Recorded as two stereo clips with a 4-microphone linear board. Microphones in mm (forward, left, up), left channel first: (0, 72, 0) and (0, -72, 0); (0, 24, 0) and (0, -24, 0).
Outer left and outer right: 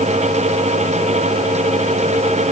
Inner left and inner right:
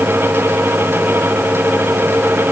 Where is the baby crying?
No baby crying in this recording.